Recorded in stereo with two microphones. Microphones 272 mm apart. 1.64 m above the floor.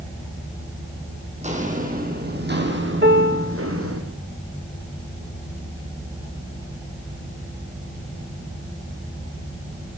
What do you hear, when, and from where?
1.4 s footsteps: 25° right (ahead or behind), 4 m; by 4.0 s 55° right (ahead or behind), 4 m
3.0 s a piano: 40° right (ahead or behind), 2.5 m